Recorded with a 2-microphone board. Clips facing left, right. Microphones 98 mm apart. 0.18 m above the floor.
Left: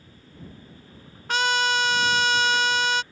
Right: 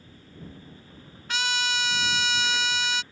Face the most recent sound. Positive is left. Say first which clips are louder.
# left 6 dB
turn(degrees=50)  # may be behind; listen again after turning